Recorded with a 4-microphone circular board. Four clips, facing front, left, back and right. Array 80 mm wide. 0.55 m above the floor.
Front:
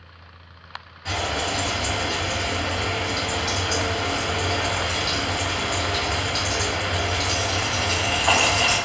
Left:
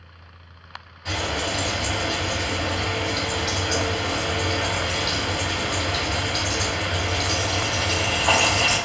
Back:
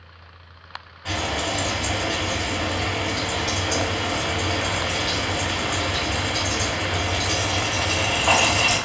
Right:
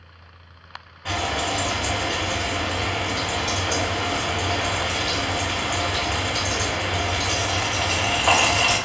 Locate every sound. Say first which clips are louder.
1.1 s frying: right 2 dB, even; 100° right, 1.2 m